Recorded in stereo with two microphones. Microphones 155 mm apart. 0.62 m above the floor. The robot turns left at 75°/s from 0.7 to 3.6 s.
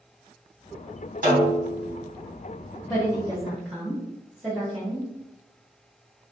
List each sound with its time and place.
1.2 s a snare drum: 95° right, 1.6 m; by 1.9 s 140° right, 1.6 m
2.9 s a woman speaking: 20° left (ahead or behind), 1.1 m; by 5.1 s 5° right (ahead or behind), 1.1 m